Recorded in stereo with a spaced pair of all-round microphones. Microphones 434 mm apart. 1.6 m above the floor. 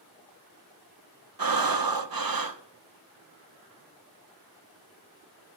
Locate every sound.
1.4 s breathing: 55° right (ahead or behind), 0.7 m